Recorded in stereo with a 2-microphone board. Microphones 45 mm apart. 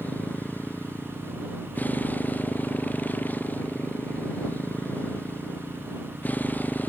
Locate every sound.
0.0 s a motorcycle: 40° left (ahead or behind)